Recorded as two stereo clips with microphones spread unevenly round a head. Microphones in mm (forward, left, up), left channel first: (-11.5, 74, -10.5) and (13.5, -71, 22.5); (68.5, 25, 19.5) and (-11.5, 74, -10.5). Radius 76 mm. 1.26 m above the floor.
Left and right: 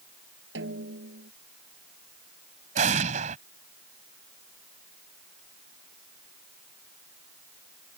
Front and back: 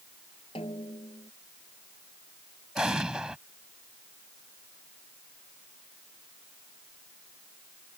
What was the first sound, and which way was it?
A snare drum, 85° right.